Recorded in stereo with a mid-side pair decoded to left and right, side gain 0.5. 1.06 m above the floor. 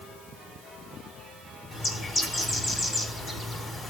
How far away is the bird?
About 5 m.